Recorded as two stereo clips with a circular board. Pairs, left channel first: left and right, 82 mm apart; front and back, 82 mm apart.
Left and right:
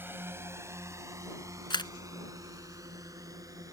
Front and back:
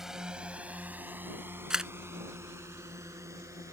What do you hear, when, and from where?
0.0 s a drone: 105° right; by 3.7 s 130° right
1.7 s a camera shutter: 95° left